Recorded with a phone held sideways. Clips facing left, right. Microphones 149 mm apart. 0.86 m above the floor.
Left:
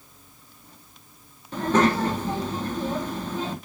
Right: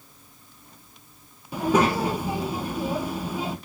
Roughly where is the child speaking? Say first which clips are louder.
Even; centre.